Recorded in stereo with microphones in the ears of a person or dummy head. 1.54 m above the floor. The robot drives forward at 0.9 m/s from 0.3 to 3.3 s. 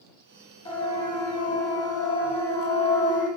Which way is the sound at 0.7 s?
25° left (ahead or behind).